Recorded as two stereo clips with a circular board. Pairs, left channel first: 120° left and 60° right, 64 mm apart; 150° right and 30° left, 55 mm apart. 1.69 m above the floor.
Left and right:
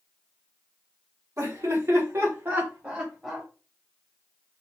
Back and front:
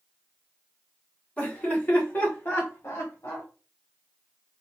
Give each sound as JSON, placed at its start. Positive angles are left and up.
{"t": 1.4, "sound": "laughter", "azimuth_deg": -90, "distance_m": 1.7}